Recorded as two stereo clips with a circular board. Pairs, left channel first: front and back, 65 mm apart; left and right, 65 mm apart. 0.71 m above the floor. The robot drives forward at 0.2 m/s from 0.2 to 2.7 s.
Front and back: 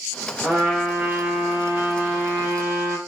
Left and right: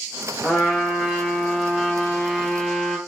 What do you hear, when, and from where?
0.4 s a trumpet: 130° right, 1.1 m; by 3.0 s 155° right, 1.3 m